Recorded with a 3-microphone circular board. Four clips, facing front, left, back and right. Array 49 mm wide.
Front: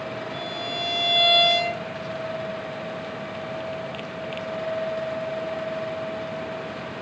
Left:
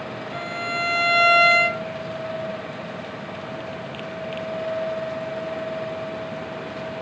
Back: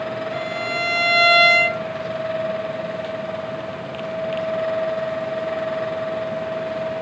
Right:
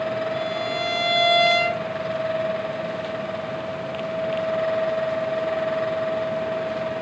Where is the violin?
160° left, 0.6 m.